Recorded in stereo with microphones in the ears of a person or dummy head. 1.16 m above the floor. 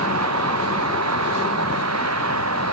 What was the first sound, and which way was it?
A vehicle, 90° right.